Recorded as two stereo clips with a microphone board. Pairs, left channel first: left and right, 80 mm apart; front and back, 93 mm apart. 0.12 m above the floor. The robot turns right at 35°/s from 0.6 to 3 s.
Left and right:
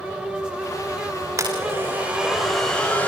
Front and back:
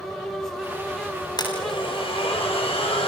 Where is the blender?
40° right, 9.5 m; by 3.1 s 20° left, 9.5 m.